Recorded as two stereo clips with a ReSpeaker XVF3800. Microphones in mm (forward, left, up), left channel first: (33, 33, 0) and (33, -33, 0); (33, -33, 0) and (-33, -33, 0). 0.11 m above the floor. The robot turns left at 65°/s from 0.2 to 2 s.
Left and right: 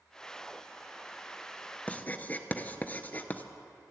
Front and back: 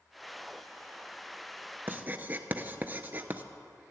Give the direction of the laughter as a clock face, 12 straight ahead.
No laughter in this recording.